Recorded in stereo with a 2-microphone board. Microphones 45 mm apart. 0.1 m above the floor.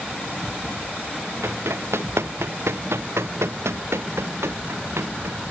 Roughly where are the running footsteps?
Right.